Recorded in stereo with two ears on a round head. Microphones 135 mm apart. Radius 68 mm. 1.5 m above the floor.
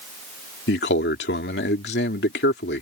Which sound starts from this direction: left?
A man speaking, at 0.7 s.